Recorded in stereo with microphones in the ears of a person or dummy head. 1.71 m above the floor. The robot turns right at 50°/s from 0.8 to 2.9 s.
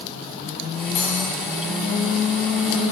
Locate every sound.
0.9 s cutlery clinking: 30° left (ahead or behind), 1.5 m; by 1.3 s 15° left (ahead or behind), 1.5 m